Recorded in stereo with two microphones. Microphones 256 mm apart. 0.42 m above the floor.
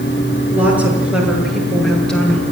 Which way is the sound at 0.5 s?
5° right (ahead or behind).